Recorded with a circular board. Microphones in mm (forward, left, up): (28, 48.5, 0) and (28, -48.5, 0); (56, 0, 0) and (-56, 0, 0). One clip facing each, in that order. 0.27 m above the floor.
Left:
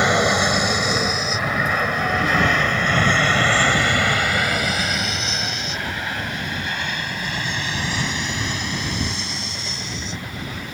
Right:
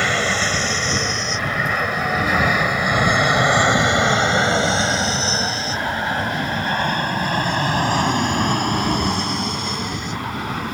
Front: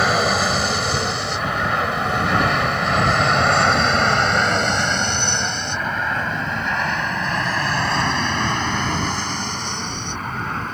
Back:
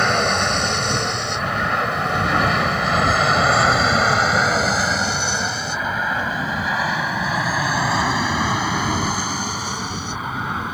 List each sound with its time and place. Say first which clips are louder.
0.0 s an aircraft: left 3 dB, front 1 dB; 80° left; by 10.8 s 100° right